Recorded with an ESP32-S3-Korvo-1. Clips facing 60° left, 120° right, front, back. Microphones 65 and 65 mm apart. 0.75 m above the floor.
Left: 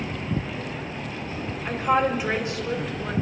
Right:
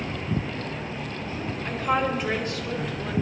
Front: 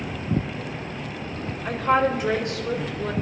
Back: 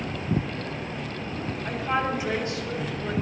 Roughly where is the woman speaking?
Ahead right.